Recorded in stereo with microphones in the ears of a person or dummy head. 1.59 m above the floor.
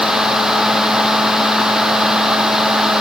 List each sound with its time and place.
Only background noise.